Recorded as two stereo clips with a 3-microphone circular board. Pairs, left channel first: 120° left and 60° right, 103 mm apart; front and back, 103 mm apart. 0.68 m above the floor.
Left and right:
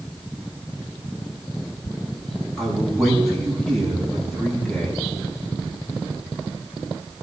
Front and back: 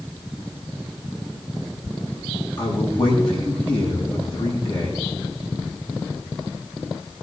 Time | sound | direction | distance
2.6 | a man speaking | 30° left | 7 m